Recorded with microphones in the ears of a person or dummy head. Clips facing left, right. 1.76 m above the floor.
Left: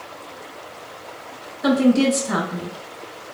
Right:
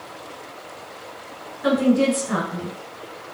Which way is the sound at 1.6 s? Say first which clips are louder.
Left 2 dB; 30° left (ahead or behind).